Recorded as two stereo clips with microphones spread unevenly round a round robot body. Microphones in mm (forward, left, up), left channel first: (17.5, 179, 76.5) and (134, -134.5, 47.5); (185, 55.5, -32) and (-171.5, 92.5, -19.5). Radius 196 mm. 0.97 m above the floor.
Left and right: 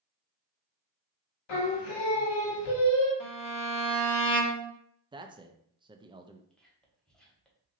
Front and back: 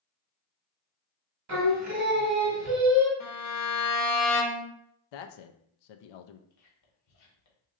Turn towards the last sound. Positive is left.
turn(degrees=20)